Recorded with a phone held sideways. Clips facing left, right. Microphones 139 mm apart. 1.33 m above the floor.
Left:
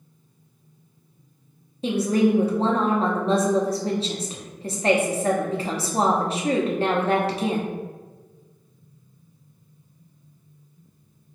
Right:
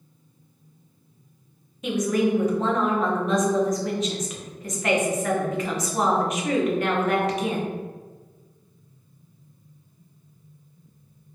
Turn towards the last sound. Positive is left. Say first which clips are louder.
# left 2 dB
turn(degrees=30)  # may be behind; listen again after turning